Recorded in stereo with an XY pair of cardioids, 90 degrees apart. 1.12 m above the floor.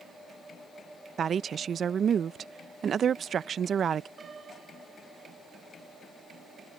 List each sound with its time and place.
1.2 s a woman speaking: 60° right
4.2 s a piano: 50° right